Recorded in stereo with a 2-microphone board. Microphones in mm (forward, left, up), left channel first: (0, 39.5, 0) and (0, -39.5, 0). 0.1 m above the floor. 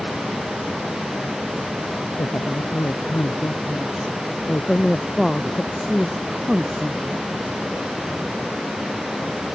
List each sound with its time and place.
2.2 s a woman speaking: 30° left (ahead or behind); by 7.3 s 10° right (ahead or behind)